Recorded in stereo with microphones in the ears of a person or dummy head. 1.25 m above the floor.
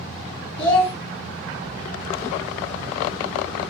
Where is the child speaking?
10° left (ahead or behind), 0.6 m.